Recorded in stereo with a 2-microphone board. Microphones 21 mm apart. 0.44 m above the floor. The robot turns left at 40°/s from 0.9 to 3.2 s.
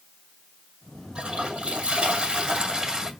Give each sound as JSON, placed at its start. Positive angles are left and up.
{"t": 1.1, "sound": "a toilet flushing", "azimuth_deg": -70, "distance_m": 2.5}